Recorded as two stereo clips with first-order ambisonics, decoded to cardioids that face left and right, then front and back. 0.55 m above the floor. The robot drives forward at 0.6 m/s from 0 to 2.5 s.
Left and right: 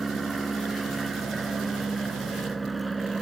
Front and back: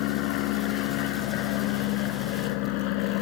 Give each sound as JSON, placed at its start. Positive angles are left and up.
{"t": 0.0, "sound": "an aircraft", "azimuth_deg": -15}